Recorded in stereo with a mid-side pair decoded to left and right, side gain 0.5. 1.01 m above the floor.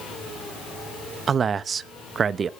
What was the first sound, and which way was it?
A man speaking, 45° right.